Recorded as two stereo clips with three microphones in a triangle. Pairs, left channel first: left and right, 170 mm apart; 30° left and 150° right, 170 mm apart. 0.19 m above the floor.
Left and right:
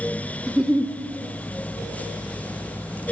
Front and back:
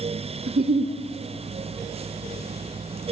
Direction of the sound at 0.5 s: 175° right.